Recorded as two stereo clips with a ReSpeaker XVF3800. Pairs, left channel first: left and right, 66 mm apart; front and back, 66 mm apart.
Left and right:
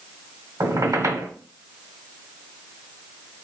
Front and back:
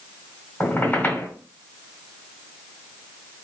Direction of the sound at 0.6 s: 60° right.